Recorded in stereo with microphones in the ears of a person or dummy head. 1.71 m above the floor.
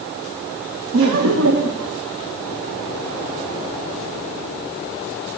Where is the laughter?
75° right (ahead or behind), 1.0 m.